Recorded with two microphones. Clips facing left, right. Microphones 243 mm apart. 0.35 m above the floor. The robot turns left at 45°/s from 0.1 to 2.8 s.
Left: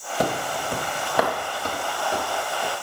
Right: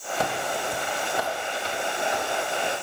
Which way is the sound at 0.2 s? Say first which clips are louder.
Left 4 dB; 40° left (ahead or behind).